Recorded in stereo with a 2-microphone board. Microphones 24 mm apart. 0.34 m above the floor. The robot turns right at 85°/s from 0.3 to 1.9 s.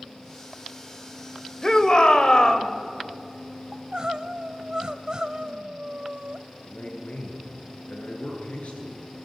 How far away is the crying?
About 0.9 m.